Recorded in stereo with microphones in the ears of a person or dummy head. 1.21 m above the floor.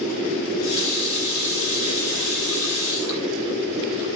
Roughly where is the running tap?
Left.